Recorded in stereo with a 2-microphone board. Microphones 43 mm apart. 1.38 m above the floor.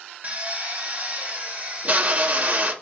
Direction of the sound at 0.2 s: 40° right (ahead or behind).